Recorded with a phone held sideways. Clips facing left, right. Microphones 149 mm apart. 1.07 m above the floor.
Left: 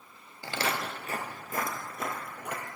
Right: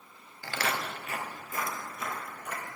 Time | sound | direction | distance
0.4 | footsteps | 20° left (ahead or behind) | 1.1 m